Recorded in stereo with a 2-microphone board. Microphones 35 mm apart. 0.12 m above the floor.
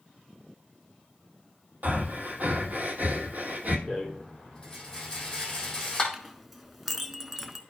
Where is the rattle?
20° left (ahead or behind), 2.5 m.